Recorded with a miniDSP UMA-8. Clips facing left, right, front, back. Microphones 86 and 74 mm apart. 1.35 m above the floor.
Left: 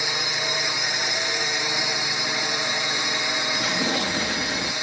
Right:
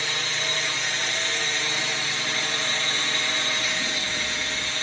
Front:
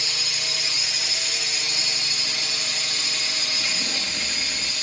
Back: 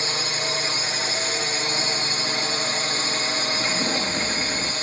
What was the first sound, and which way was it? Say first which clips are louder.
A drone: left 2 dB, back 6 dB; 160° left.